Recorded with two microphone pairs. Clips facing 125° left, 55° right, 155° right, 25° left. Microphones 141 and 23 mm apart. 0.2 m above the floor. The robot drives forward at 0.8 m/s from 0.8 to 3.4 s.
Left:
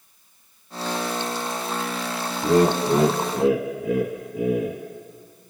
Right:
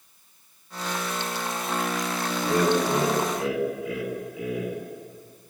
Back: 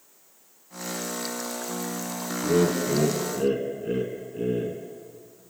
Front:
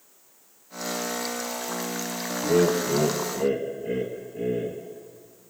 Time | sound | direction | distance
2.4 | laughter | 110° left | 1.4 m